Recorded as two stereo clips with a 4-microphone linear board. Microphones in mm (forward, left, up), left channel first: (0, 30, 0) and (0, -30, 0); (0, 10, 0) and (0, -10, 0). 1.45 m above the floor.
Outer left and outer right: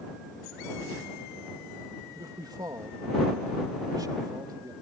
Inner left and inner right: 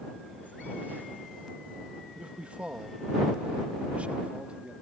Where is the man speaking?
80° right; by 4.7 s 85° right.